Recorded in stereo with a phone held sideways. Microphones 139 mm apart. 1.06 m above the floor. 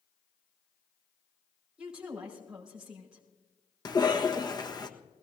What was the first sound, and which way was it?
A woman speaking, 5° right (ahead or behind).